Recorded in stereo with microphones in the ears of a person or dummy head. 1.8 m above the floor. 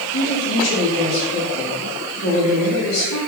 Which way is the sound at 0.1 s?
70° left (ahead or behind).